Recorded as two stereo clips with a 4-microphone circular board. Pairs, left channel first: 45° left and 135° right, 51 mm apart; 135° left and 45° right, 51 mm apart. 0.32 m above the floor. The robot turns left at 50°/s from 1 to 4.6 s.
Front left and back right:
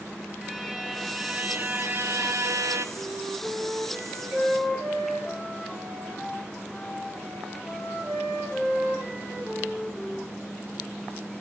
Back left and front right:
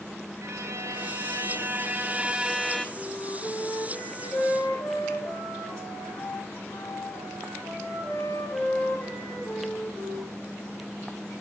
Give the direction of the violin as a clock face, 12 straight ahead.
2 o'clock.